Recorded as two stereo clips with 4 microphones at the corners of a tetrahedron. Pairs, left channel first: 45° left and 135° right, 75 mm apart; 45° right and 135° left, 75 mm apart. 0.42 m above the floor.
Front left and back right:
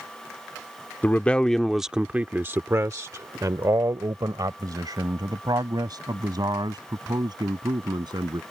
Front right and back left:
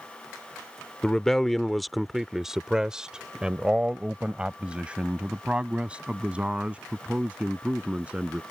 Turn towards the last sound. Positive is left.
turn(degrees=-150)